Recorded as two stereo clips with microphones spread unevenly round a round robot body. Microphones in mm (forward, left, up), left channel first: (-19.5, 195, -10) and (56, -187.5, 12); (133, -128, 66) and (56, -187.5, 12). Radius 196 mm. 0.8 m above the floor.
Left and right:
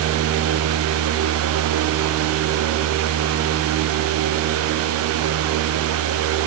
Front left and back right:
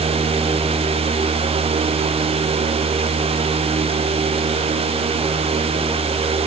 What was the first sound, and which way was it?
Only background noise.